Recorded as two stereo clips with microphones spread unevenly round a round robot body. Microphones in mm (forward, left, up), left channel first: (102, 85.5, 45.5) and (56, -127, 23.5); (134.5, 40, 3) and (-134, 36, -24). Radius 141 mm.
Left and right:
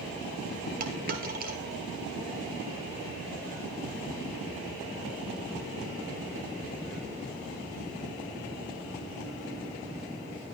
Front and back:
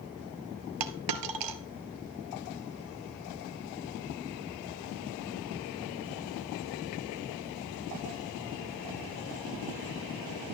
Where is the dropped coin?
165° right, 1.3 m.